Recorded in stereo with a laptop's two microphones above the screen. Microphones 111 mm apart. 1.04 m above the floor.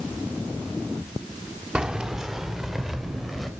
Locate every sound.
1.8 s keys jangling: 10° right (ahead or behind), 1.4 m; by 3.5 s centre (ahead or behind), 3 m